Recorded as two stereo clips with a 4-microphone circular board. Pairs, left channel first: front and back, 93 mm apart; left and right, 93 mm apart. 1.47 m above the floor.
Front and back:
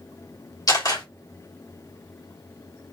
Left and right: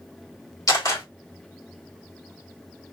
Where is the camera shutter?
40° left, 2 m.